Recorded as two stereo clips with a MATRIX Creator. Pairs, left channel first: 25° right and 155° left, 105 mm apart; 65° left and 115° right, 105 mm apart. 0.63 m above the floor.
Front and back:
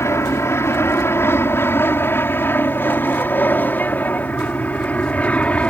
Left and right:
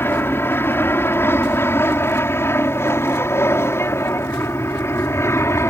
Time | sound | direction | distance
0.0 | an aircraft | 15° left | ?